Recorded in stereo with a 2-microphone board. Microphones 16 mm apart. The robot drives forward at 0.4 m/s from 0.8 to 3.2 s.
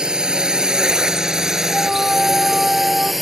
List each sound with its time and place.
0.0 s a drone: 65° right (ahead or behind); by 3.2 s 10° right (ahead or behind)
1.7 s a flute: 35° right (ahead or behind); by 3.1 s 30° right (ahead or behind)